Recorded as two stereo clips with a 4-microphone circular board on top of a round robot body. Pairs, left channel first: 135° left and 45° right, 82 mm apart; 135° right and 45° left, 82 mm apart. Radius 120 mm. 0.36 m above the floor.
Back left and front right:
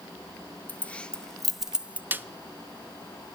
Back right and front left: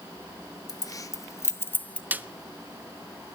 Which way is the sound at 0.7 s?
155° right.